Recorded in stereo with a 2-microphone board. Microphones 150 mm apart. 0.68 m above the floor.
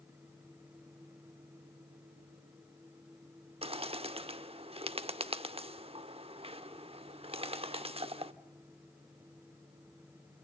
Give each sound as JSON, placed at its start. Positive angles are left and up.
{"t": 3.6, "sound": "a bird", "side_deg": -40, "distance_m": 0.8}